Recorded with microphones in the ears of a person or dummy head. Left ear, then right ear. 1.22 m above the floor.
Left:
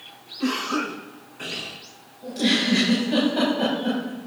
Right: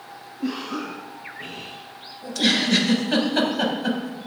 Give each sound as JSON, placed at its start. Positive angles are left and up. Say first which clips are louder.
{"t": 0.4, "sound": "a cough", "louder": "left 4 dB", "side_deg": 60, "distance_m": 5.0}
{"t": 2.2, "sound": "a giggle", "louder": "right 1 dB", "side_deg": -55, "distance_m": 6.0}